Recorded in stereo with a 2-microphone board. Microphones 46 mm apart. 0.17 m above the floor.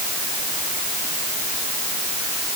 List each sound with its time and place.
Only background noise.